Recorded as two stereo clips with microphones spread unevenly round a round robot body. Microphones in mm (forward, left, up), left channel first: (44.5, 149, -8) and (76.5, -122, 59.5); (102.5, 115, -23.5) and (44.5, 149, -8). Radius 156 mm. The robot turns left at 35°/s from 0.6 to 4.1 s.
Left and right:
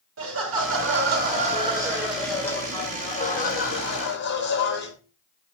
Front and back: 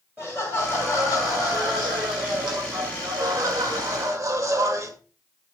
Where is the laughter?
125° right, 2 m; by 4.9 s 110° left, 2 m.